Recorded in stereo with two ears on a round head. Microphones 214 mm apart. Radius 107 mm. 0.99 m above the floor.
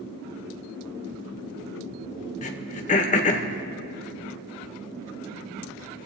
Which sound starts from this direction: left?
Throat clearing, at 2.4 s.